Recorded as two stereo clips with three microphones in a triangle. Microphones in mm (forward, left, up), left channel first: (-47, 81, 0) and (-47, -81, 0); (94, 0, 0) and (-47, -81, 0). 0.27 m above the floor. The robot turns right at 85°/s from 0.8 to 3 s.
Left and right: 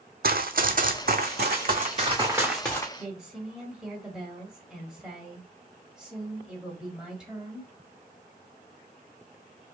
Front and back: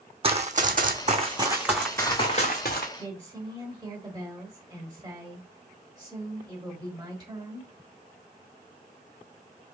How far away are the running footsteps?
About 0.6 m.